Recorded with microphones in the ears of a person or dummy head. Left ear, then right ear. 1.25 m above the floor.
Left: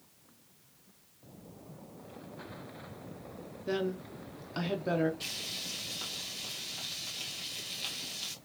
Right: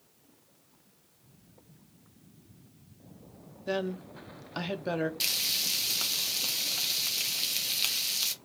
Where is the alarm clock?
No alarm clock in this recording.